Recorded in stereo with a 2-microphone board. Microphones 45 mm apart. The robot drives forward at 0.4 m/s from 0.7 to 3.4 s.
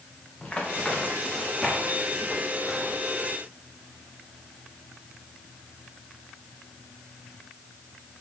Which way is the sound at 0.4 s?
30° left (ahead or behind).